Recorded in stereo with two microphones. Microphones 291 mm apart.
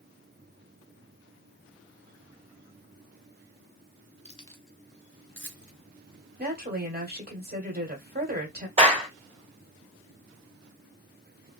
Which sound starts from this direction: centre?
A clap, at 8.8 s.